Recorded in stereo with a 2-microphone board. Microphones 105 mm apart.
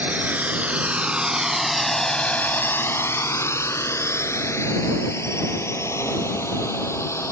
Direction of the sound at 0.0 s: 15° right (ahead or behind).